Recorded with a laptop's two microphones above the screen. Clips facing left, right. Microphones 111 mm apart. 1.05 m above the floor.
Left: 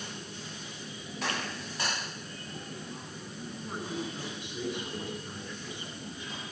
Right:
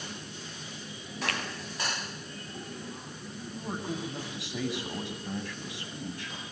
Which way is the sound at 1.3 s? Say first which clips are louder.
Even; 75° right (ahead or behind).